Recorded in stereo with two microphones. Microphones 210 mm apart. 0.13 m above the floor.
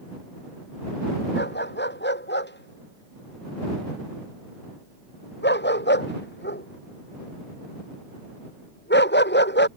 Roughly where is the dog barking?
Left.